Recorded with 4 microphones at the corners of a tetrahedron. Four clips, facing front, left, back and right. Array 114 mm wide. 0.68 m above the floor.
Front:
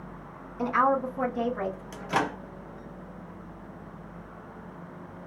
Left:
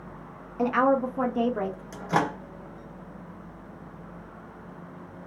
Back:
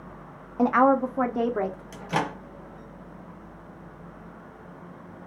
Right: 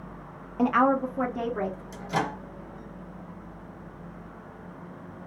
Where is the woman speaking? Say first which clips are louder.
Even, back 5 dB; 170° right, 0.7 m; by 1.8 s 155° left, 1.1 m.